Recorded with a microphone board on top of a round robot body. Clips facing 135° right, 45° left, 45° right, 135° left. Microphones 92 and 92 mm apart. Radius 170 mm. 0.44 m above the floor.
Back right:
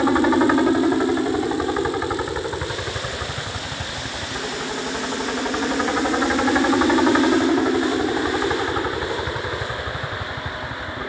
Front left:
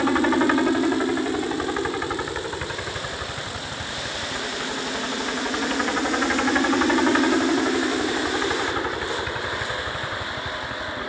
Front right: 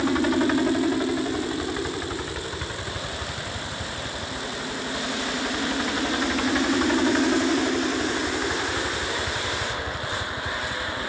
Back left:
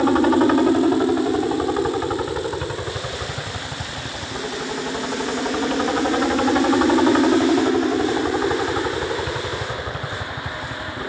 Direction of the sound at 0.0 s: 155° left.